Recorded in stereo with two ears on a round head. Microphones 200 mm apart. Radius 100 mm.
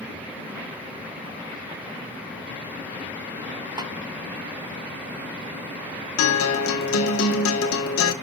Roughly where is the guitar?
Left.